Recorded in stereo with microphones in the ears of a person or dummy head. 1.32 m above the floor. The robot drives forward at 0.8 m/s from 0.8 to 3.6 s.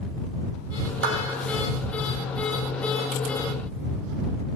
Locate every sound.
1.0 s a clap: 70° right (ahead or behind), 2.5 m; by 1.2 s 75° right (ahead or behind), 2.5 m